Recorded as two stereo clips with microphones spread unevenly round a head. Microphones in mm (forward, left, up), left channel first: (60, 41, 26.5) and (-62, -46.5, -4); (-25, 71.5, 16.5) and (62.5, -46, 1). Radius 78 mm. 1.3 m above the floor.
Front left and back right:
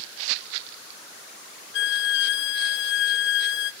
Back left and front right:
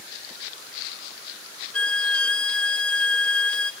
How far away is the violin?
About 1.3 m.